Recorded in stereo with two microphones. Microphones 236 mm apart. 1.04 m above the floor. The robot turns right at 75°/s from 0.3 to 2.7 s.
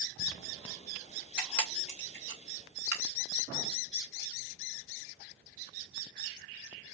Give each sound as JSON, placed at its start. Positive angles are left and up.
{"t": 1.4, "sound": "a camera shutter", "side_deg": -10, "distance_m": 2.5}